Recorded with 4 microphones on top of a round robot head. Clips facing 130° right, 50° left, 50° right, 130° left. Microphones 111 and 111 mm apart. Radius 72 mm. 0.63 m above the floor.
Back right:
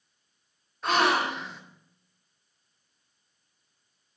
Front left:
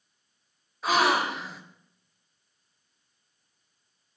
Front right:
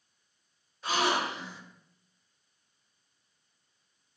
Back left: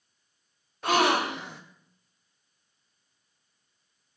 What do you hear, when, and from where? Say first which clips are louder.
0.8 s a gasp: front left 1 dB, back left 5 dB; 140° left, 1.8 m